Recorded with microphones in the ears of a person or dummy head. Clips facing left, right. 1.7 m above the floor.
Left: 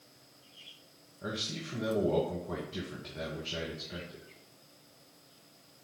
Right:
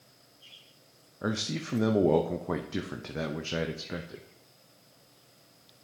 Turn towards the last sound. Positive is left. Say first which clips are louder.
# right 7 dB
turn(degrees=-70)  # may be behind; listen again after turning